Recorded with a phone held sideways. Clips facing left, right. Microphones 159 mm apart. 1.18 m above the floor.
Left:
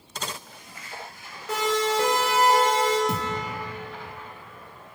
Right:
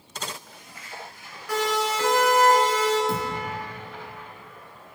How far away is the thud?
About 4.5 m.